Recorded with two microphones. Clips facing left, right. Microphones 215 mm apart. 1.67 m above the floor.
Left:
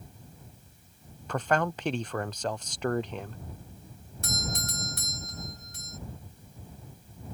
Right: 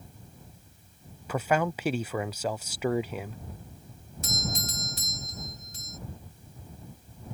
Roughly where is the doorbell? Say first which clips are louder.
Right 1 dB; left.